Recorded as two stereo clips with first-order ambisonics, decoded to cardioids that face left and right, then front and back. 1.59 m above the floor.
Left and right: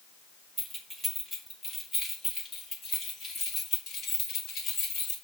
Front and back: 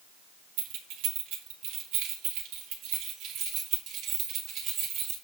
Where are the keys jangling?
175° right, 2 m; by 5.2 s 135° left, 3.5 m.